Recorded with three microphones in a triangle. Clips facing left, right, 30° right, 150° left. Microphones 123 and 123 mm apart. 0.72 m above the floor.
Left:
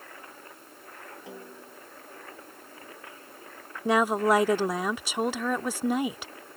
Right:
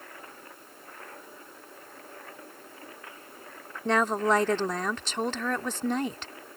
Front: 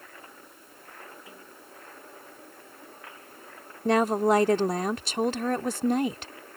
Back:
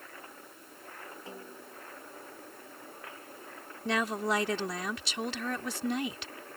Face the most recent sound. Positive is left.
turn(degrees=10)